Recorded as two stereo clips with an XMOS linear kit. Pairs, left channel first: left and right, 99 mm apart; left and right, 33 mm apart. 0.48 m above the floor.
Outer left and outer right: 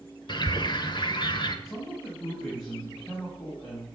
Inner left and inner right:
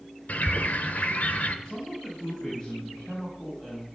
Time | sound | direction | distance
0.3 | a bird | 50° left (ahead or behind) | 0.9 m
1.6 | a man speaking | 35° left (ahead or behind) | 4 m